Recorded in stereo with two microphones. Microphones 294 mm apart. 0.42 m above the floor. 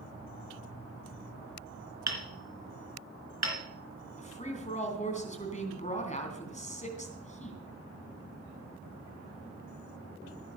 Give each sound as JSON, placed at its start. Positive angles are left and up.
{"t": 2.1, "sound": "hammering", "side_deg": -65, "distance_m": 3.0}
{"t": 4.2, "sound": "a woman speaking", "side_deg": 25, "distance_m": 3.0}